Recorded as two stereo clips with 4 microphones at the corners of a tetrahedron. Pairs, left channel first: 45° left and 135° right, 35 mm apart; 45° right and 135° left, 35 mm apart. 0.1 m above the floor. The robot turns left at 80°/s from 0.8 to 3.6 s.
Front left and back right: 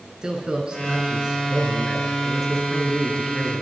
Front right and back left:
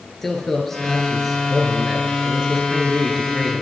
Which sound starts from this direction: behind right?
A man speaking, at 0.2 s.